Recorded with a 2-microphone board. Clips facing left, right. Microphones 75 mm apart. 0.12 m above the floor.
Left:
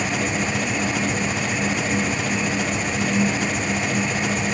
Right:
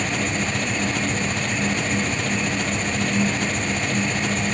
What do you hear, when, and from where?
0.0 s an engine running: 5° left (ahead or behind)